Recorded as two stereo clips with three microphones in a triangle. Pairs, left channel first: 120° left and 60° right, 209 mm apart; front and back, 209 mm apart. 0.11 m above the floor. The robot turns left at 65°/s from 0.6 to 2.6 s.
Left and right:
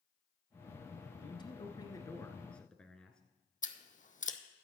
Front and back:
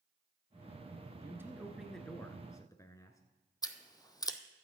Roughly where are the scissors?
Left.